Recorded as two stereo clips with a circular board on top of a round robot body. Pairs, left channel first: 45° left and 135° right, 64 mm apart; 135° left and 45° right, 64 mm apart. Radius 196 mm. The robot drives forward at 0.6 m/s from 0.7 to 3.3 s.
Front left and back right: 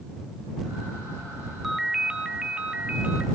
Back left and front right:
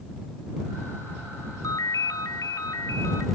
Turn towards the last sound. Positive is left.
turn(degrees=160)